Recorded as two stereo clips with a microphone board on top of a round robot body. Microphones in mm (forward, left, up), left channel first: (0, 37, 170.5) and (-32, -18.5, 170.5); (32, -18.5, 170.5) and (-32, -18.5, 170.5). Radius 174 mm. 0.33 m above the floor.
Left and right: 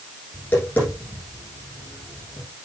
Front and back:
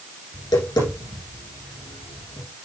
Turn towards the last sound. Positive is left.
turn(degrees=0)